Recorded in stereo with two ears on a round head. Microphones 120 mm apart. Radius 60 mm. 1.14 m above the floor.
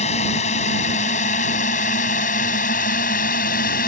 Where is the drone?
55° left (ahead or behind); by 3.9 s 70° left (ahead or behind).